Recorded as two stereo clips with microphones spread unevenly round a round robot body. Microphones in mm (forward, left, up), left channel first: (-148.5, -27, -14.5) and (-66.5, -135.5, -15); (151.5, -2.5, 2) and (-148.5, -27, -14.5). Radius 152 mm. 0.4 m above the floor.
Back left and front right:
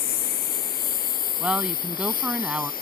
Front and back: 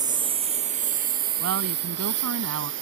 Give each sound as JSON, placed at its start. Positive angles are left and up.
{"t": 0.0, "sound": "a lawn mower", "azimuth_deg": 105}
{"t": 1.4, "sound": "a woman speaking", "azimuth_deg": -135}